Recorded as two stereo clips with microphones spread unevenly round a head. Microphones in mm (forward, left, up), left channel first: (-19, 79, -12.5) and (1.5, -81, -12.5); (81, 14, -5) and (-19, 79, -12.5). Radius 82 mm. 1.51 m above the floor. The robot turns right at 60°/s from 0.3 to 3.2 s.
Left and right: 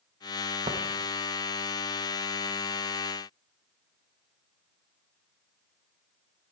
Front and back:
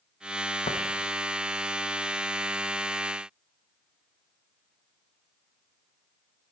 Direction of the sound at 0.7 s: 30° right.